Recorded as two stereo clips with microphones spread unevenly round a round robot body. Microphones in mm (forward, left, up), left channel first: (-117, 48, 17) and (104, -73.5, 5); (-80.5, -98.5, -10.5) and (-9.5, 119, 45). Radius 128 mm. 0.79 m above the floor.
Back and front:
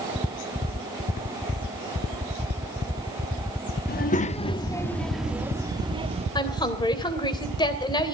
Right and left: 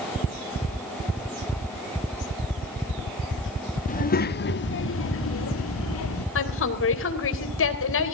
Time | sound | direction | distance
3.9 | a child speaking | 155° right | 1.4 m
6.3 | a woman speaking | 135° right | 3 m